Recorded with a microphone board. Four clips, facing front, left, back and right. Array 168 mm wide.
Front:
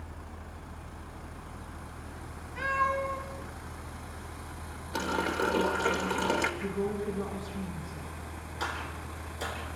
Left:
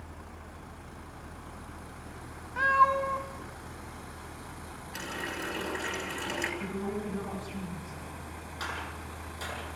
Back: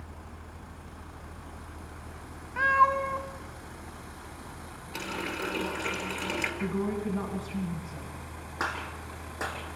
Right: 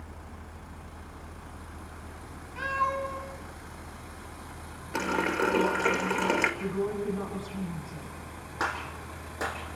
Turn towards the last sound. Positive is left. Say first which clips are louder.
# right 6 dB, back 2 dB
turn(degrees=-135)